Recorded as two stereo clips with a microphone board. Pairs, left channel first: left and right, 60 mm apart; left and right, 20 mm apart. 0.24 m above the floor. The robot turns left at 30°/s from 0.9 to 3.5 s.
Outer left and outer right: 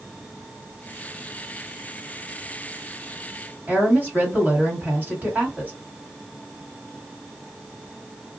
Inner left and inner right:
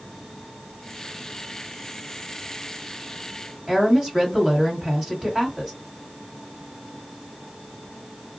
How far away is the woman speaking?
About 1.7 m.